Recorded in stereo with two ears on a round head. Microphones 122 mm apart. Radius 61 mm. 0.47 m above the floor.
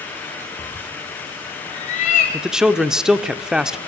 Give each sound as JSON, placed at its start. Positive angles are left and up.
{"t": 0.6, "sound": "a cat meowing", "side_deg": 30, "distance_m": 1.4}
{"t": 2.3, "sound": "a man speaking", "side_deg": -5, "distance_m": 0.7}